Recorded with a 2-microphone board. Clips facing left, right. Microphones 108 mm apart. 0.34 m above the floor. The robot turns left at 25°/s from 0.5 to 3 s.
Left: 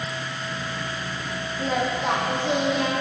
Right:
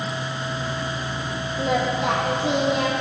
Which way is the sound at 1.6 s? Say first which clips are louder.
Right 3 dB; 80° right.